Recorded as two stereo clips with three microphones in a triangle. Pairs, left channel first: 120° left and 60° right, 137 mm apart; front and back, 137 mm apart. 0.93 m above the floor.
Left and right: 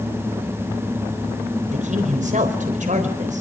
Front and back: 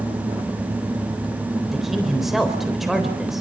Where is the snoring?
No snoring in this recording.